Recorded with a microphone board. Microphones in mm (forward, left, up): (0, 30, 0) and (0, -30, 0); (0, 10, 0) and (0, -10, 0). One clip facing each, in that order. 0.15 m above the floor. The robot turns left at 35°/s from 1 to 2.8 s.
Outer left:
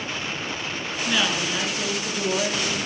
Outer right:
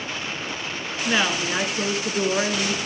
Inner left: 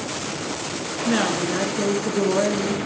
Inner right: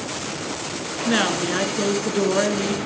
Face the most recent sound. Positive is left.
turn(degrees=-105)